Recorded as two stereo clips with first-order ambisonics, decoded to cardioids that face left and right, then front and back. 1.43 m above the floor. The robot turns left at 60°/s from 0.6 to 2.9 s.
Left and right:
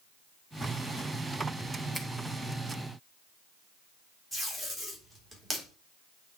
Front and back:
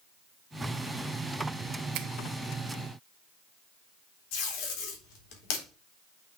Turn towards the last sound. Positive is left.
turn(degrees=-5)